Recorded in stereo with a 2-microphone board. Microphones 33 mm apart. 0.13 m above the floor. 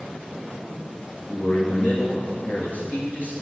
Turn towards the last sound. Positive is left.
turn(degrees=50)  # may be behind; listen again after turning